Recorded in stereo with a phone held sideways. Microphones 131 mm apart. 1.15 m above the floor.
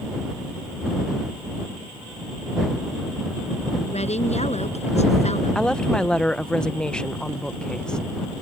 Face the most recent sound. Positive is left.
turn(degrees=5)  # may be behind; listen again after turning